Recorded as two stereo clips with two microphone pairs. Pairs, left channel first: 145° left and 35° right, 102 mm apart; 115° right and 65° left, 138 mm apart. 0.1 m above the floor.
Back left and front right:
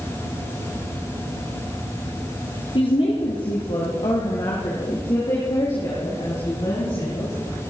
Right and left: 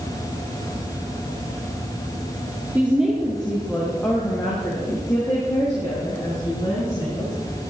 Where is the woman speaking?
140° left, 2.0 m; by 7.4 s 175° right, 6.5 m.